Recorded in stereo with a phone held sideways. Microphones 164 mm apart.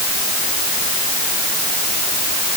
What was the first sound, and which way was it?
Only background noise.